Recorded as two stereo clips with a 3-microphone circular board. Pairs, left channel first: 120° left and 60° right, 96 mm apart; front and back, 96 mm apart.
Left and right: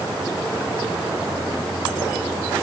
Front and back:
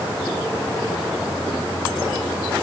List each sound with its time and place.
Only background noise.